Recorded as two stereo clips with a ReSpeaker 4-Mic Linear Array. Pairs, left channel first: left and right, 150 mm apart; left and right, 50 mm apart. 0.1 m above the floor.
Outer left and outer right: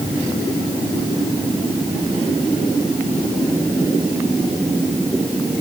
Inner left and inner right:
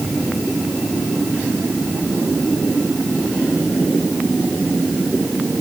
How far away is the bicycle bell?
I don't hear a bicycle bell.